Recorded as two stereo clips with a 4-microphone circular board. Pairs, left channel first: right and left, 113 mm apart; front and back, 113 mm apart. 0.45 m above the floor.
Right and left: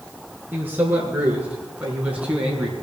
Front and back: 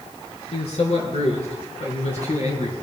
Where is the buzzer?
No buzzer in this recording.